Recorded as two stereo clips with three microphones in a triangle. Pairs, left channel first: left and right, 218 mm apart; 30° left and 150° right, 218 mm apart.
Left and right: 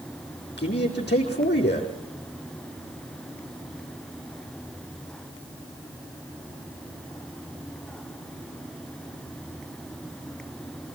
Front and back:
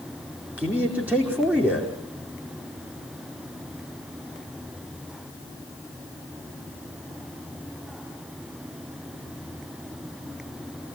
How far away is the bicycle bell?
No bicycle bell in this recording.